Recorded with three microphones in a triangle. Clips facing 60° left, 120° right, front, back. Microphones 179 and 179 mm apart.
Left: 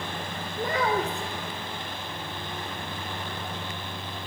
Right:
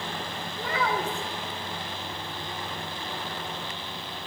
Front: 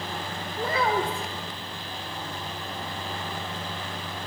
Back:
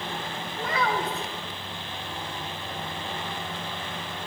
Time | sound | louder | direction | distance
0.6 | a child speaking | left 3 dB, front 2 dB | 45° left | 0.6 m